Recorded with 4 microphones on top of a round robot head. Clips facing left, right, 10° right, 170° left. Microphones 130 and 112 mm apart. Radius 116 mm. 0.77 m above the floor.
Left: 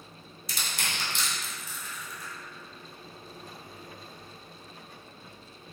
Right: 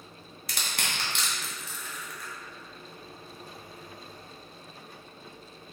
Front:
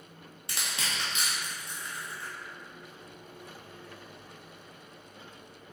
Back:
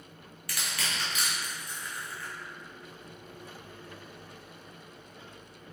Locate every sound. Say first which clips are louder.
0.5 s crushing: right 1 dB, even; 75° right, 1.7 m